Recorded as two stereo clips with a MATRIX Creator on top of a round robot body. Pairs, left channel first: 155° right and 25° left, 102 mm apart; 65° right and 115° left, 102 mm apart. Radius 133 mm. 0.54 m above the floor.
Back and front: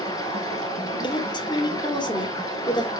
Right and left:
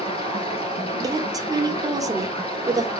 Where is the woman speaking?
165° left, 1.9 m.